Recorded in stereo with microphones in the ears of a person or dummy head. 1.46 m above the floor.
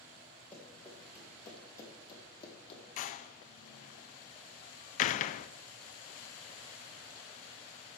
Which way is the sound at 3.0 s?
50° left (ahead or behind).